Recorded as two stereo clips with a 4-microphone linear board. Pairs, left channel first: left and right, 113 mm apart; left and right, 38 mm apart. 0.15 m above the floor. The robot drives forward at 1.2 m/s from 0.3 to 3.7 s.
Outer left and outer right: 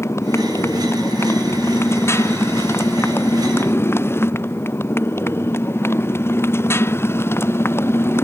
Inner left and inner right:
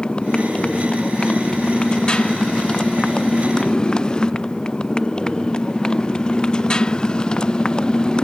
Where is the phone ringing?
No phone ringing in this recording.